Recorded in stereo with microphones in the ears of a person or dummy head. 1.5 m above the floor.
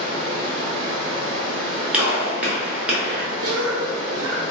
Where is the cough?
70° right (ahead or behind), 0.5 m.